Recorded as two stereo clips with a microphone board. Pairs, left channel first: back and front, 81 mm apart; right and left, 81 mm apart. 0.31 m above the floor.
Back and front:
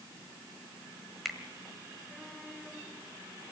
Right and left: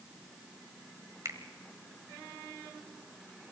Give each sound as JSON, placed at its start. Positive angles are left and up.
{"t": 1.2, "sound": "a finger snap", "azimuth_deg": 90, "distance_m": 1.4}